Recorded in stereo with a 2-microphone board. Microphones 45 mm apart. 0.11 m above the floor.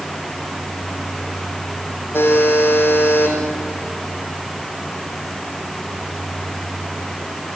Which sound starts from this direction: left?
A buzzer, at 2.1 s.